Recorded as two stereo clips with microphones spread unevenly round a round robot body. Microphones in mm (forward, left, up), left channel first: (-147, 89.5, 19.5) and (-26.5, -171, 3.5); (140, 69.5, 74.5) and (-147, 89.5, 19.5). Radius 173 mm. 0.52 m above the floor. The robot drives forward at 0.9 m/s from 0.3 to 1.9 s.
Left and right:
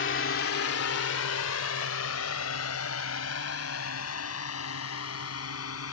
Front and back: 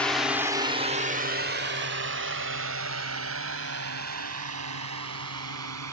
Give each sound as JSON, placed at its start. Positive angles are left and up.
{"t": 0.0, "sound": "a drone", "azimuth_deg": 95}